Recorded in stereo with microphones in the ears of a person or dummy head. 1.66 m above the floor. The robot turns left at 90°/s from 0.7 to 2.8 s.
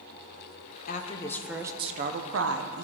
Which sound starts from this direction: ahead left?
A woman speaking, at 0.9 s.